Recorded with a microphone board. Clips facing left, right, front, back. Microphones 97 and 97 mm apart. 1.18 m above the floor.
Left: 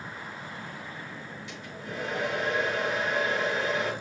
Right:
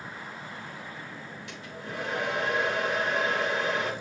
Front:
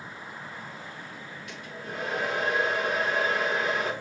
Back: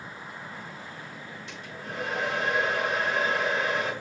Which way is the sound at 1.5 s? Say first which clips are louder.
Right 1 dB, front 1 dB; 120° right.